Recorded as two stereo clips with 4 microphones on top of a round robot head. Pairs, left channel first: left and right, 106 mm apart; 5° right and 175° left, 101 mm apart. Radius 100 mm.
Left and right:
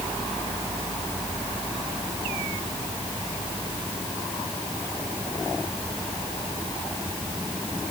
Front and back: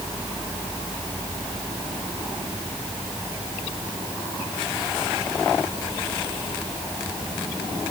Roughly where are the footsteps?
No footsteps in this recording.